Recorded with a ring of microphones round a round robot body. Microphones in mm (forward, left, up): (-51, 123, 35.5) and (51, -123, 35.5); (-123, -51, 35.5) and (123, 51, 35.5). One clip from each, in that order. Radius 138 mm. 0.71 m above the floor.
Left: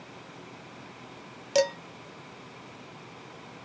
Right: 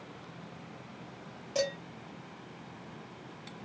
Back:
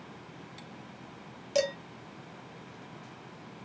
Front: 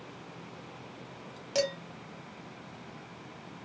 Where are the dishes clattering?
115° left, 0.6 m.